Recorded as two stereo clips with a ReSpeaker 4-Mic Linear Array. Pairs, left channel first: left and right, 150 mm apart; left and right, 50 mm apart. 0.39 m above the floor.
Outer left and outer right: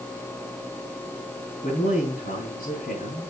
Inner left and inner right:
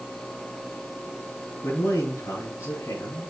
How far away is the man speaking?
About 6 m.